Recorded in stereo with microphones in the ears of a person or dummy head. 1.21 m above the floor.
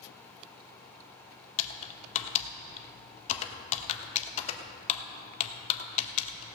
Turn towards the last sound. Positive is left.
turn(degrees=40)  # may be behind; listen again after turning